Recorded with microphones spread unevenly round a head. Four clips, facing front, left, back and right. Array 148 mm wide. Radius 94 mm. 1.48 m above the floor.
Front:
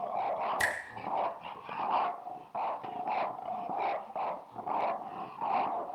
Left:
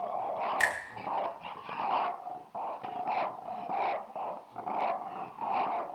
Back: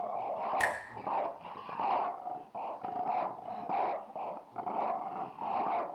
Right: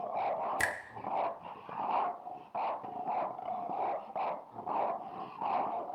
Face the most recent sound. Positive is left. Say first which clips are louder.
# left 4 dB, back 1 dB
turn(degrees=-95)